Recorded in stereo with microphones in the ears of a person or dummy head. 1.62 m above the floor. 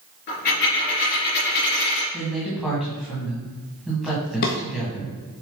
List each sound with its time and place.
0.3 s a dropped coin: 40° left (ahead or behind), 3.5 m
2.1 s a woman speaking: centre (ahead or behind), 2 m
4.4 s a drawer: 40° left (ahead or behind), 0.9 m